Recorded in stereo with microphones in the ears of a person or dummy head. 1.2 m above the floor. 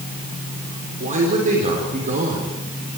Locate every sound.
1.0 s a man speaking: 35° right (ahead or behind), 4 m